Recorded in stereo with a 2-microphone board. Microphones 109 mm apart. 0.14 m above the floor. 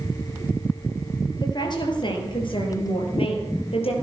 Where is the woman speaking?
40° left (ahead or behind), 3.5 m; by 3.9 s 60° left (ahead or behind), 4 m.